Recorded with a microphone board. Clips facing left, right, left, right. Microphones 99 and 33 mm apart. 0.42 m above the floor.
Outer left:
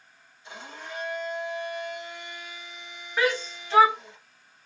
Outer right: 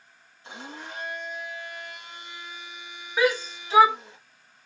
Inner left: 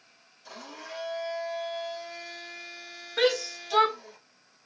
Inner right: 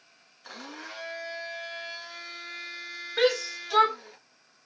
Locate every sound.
0.4 s a blender: 80° right, 2.5 m
3.2 s a shout: 5° right (ahead or behind), 1.3 m